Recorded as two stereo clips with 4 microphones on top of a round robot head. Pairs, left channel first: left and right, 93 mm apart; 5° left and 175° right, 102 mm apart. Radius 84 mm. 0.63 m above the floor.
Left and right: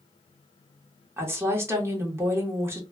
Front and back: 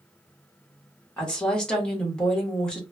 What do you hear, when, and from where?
1.2 s a woman speaking: 70° right, 1.1 m